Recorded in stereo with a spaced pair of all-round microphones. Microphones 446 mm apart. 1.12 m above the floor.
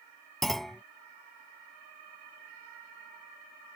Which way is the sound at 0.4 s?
Centre (ahead or behind).